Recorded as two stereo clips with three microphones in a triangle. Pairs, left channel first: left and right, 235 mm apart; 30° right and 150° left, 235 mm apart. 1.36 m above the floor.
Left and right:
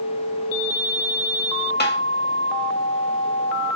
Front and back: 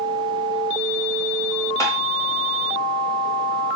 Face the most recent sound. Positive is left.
turn(degrees=45)